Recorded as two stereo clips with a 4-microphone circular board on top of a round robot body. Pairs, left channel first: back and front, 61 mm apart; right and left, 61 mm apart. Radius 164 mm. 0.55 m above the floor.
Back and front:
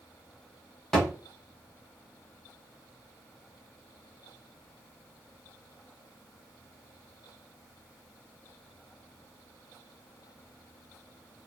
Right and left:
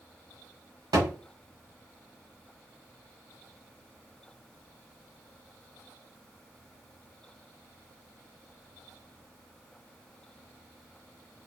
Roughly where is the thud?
Left.